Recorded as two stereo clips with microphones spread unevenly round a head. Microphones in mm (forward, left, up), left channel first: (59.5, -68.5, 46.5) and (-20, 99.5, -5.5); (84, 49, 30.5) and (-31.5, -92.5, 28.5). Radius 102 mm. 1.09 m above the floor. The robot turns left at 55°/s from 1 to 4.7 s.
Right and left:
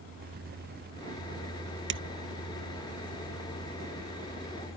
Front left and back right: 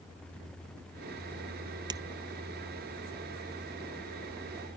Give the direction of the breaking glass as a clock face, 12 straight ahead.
7 o'clock.